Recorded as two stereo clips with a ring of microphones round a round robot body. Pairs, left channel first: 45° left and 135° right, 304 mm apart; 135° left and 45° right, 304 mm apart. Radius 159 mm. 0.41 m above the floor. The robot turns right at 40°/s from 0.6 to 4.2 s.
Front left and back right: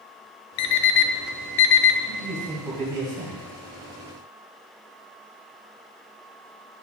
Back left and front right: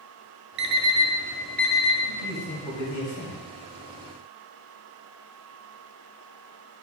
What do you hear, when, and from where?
0.6 s an alarm clock: 10° left, 0.5 m; by 2.0 s 65° left, 0.5 m
2.1 s a man speaking: 135° left, 2.5 m; by 3.4 s 175° right, 2.5 m